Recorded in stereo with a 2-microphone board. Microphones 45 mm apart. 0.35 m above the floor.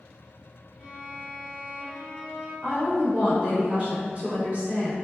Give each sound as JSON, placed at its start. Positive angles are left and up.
{"t": 0.8, "sound": "a violin", "side_deg": -15, "distance_m": 0.9}
{"t": 2.6, "sound": "a woman speaking", "side_deg": -35, "distance_m": 0.9}